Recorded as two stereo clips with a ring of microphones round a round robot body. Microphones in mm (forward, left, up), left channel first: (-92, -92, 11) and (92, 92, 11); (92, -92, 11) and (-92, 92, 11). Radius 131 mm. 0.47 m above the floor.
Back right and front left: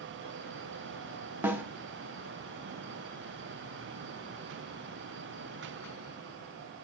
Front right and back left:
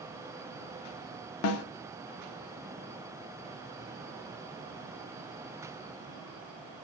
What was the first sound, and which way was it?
A snare drum, 35° right.